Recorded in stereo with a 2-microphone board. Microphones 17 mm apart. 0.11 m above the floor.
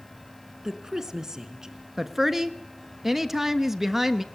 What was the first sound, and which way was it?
A woman speaking, 35° right (ahead or behind).